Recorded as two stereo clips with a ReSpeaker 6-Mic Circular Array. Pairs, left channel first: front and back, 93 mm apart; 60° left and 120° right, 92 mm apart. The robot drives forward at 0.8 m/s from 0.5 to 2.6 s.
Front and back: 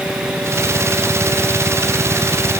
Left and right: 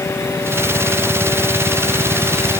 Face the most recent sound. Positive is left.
No sound to turn to.